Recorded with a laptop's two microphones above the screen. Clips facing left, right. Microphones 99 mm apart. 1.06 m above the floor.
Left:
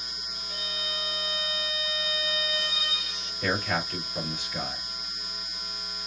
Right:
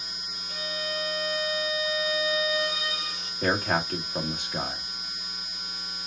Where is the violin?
60° right (ahead or behind), 3 m.